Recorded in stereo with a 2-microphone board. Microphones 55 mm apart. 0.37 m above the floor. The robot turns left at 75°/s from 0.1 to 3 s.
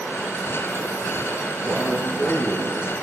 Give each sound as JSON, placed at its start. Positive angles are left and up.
{"t": 1.6, "sound": "a man speaking", "azimuth_deg": -145, "distance_m": 10.0}